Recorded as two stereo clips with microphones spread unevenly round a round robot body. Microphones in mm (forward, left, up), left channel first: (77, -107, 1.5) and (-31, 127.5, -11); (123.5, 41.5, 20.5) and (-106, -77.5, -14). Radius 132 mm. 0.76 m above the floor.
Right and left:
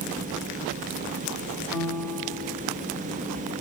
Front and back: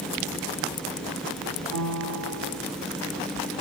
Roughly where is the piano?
Behind.